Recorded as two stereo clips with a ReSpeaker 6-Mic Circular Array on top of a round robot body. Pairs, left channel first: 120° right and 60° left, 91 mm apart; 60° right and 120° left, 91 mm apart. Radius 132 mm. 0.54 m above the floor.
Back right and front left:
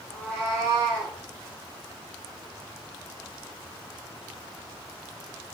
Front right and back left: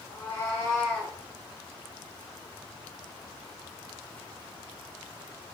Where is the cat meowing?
5° right, 4 m; by 1.1 s 5° left, 4 m.